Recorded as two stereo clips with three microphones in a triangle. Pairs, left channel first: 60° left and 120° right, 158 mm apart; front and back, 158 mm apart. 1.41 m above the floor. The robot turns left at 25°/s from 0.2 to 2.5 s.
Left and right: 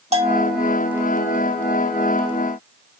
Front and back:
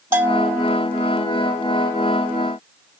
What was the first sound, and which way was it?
A bell, 110° right.